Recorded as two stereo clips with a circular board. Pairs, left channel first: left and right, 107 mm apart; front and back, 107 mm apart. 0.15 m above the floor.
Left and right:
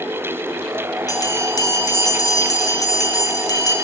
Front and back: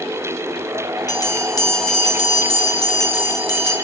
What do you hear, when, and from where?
1.1 s a bell: 45° left, 2.5 m